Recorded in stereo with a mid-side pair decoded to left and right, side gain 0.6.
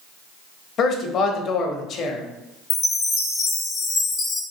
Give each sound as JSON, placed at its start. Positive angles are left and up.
{"t": 0.8, "sound": "a man speaking", "azimuth_deg": 50, "distance_m": 0.6}
{"t": 2.7, "sound": "a chime", "azimuth_deg": 45, "distance_m": 0.6}